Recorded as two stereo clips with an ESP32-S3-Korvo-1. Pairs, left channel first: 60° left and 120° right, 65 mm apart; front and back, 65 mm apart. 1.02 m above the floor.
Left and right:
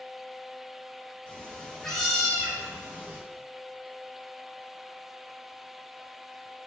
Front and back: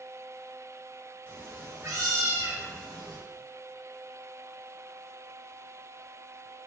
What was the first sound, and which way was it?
A cat meowing, 125° left.